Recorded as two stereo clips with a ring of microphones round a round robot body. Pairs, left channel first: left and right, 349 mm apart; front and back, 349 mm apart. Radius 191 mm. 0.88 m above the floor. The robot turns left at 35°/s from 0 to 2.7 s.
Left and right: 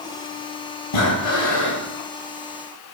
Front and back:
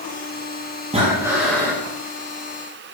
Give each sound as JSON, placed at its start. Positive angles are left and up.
{"t": 0.9, "sound": "breathing", "azimuth_deg": 110, "distance_m": 7.5}